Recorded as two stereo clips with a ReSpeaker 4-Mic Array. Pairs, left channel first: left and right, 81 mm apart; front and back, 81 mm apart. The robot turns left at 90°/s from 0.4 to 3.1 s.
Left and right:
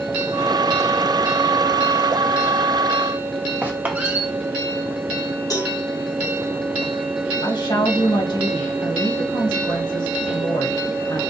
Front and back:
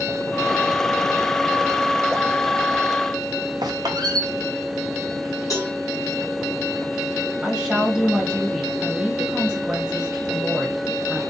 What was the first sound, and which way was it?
A squeak, 155° right.